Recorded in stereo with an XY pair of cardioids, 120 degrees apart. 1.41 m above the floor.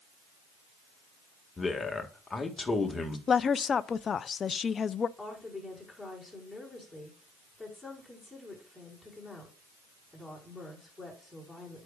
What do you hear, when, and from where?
1.6 s a man speaking: 20° left, 1.7 m
3.3 s a woman speaking: 35° left, 0.5 m
5.2 s a woman speaking: straight ahead, 5 m